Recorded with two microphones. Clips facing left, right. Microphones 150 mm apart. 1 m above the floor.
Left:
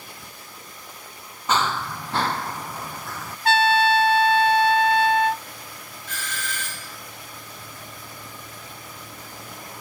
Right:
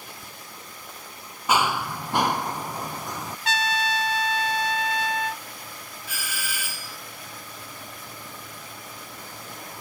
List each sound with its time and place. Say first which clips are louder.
1.5 s running footsteps: right 1 dB; 10° right (ahead or behind); by 3.4 s 15° right (ahead or behind)
3.5 s a trumpet: left 9 dB; 60° left (ahead or behind)
6.1 s a doorbell: left 3 dB; 10° right (ahead or behind)